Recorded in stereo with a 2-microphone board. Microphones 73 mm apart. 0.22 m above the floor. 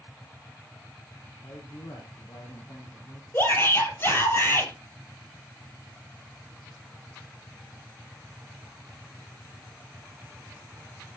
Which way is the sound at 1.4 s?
45° left (ahead or behind).